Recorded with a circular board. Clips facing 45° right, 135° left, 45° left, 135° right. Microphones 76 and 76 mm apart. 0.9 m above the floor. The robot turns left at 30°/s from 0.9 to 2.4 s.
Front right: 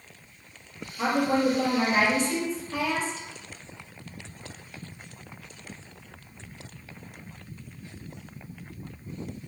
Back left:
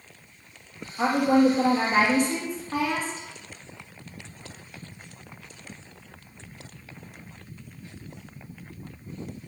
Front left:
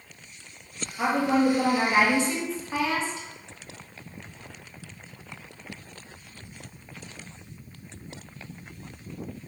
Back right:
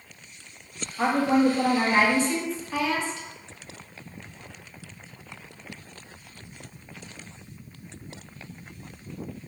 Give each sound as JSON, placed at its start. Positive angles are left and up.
{"t": 1.0, "sound": "a woman speaking", "azimuth_deg": 145, "distance_m": 1.5}